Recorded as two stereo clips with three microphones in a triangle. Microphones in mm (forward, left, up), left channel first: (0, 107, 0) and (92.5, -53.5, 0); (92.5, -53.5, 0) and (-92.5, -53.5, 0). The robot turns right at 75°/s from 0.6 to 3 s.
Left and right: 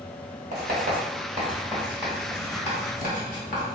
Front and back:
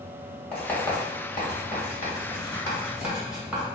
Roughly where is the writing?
Right.